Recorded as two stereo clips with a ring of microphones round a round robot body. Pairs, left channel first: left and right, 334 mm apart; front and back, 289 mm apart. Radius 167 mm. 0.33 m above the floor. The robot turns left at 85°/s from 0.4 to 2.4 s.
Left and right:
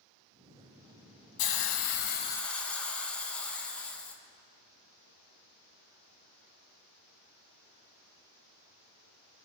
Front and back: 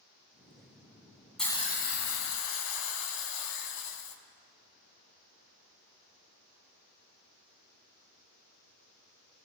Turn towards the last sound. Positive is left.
turn(degrees=5)